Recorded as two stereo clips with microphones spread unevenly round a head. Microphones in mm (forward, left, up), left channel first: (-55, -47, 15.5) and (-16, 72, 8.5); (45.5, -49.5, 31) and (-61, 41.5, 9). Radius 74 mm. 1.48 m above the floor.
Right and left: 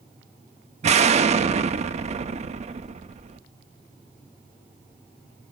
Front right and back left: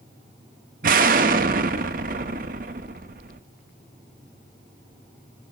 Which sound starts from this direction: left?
An explosion, at 0.8 s.